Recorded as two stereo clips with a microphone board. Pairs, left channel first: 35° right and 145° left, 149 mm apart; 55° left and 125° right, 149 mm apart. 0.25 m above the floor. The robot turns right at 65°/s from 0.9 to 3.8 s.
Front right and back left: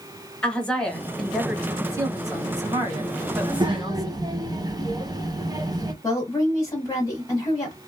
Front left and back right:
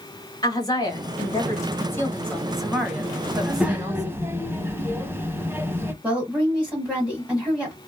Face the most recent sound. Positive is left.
turn(degrees=-60)